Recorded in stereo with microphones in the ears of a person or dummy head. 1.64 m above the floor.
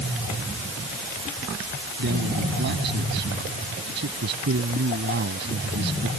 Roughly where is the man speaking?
Right.